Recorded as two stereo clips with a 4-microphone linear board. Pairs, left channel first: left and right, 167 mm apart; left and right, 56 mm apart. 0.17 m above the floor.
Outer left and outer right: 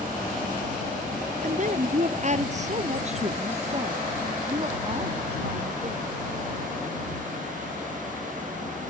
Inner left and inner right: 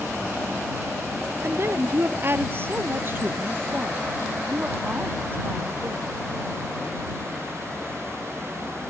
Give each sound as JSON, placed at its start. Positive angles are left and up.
{"t": 1.4, "sound": "a woman speaking", "side_deg": -50}